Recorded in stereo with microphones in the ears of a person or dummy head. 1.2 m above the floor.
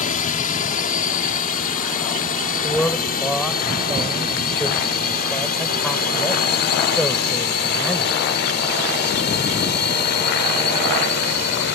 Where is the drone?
35° left (ahead or behind); by 11.8 s 55° left (ahead or behind).